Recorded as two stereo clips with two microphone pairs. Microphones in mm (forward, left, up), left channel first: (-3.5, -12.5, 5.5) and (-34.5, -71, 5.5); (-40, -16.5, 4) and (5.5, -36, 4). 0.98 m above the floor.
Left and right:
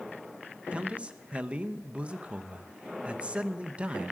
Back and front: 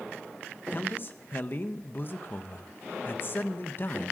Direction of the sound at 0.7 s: Straight behind.